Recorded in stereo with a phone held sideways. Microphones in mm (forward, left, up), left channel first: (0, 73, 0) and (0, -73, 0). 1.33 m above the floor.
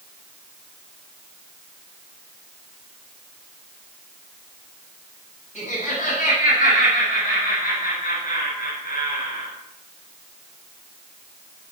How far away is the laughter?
About 8.5 m.